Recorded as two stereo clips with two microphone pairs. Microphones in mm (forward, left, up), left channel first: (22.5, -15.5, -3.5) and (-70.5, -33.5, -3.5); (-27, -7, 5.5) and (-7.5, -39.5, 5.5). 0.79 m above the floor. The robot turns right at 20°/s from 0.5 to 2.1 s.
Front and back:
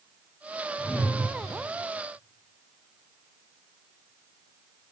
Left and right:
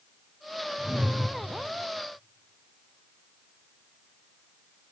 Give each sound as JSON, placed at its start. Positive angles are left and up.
{"t": 0.8, "sound": "a whoosh", "azimuth_deg": -60, "distance_m": 0.9}